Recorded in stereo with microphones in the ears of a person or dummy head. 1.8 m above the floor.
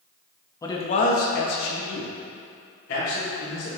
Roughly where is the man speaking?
Left.